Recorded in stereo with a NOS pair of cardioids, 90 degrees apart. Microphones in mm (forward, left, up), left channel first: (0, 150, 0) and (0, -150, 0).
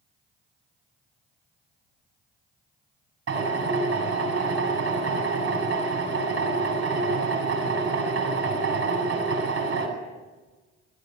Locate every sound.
3.3 s a drill: 50° right, 8.5 m